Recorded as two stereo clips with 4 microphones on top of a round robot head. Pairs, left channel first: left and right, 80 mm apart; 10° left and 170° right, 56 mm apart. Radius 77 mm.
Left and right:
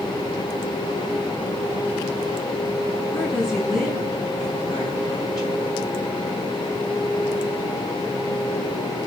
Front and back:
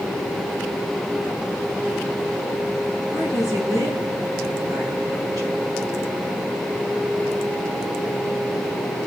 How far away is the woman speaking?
About 5.5 m.